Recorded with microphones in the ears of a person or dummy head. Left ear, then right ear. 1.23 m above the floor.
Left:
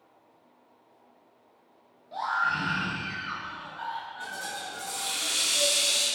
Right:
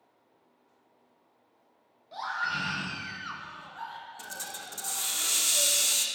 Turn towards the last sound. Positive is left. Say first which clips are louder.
# left 5 dB
turn(degrees=-60)  # may be behind; listen again after turning